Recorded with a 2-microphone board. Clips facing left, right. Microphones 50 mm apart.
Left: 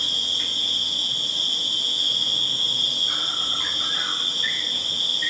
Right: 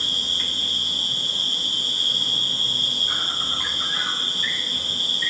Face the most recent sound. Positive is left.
turn(degrees=-15)  # may be behind; listen again after turning